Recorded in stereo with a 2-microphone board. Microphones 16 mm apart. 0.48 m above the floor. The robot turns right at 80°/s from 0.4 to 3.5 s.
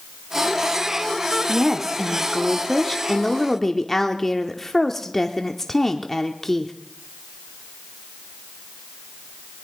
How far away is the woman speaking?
About 0.7 m.